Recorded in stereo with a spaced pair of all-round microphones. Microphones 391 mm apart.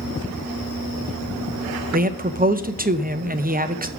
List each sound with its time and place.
1.9 s a man speaking: 25° right (ahead or behind), 0.5 m